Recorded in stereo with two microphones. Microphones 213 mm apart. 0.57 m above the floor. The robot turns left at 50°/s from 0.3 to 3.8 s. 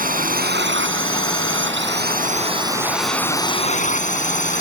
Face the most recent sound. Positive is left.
turn(degrees=140)